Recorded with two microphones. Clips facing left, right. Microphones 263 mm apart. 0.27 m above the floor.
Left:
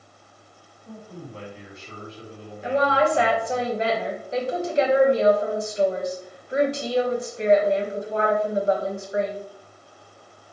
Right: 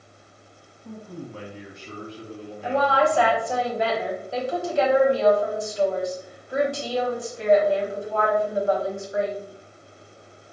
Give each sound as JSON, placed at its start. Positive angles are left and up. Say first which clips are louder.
{"t": 0.8, "sound": "a man speaking", "louder": "right 3 dB", "side_deg": -60, "distance_m": 2.0}
{"t": 2.6, "sound": "a woman speaking", "louder": "left 1 dB", "side_deg": 20, "distance_m": 1.5}